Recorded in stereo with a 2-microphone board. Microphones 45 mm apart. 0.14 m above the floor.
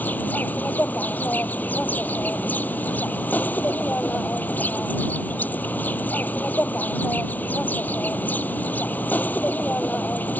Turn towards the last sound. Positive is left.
turn(degrees=40)  # may be behind; listen again after turning